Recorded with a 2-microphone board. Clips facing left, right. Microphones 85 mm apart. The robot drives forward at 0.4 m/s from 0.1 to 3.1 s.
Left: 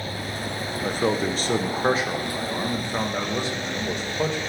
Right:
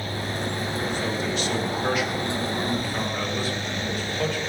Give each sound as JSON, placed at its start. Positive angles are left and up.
{"t": 0.8, "sound": "a man speaking", "side_deg": 45, "distance_m": 0.9}